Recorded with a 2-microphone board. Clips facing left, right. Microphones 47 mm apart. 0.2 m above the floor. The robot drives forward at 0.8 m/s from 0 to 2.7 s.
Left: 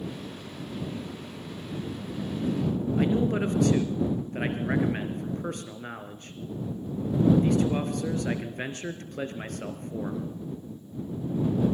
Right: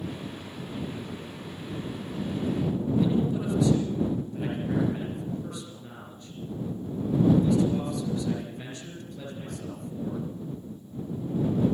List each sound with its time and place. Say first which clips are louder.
3.0 s a man speaking: left 2 dB; 60° left (ahead or behind), 3 m